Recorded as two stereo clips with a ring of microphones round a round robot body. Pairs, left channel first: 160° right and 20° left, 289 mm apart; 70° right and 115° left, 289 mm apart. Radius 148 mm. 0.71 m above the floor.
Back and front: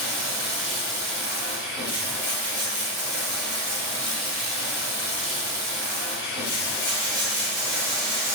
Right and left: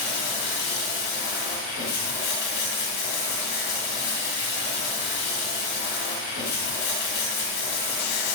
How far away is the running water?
About 1.4 m.